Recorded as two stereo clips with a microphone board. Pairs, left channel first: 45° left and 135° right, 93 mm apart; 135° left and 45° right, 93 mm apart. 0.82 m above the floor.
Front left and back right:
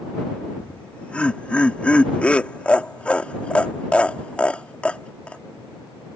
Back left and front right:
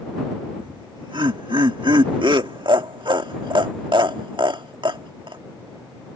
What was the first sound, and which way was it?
Laughter, 30° right.